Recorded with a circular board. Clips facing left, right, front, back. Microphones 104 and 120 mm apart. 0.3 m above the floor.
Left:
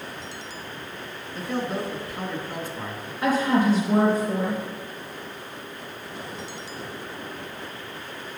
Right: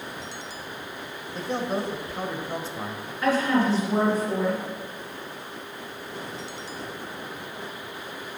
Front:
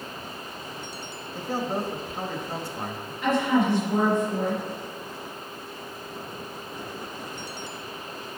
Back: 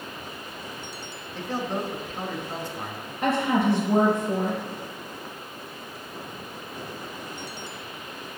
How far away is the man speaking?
About 1.4 m.